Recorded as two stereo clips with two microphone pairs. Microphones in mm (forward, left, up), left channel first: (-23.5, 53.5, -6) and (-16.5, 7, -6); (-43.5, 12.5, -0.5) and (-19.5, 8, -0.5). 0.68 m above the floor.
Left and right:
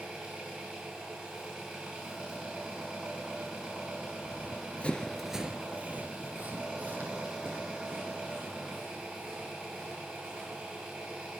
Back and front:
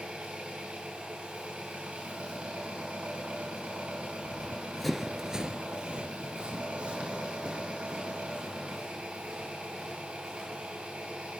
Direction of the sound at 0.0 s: 15° right.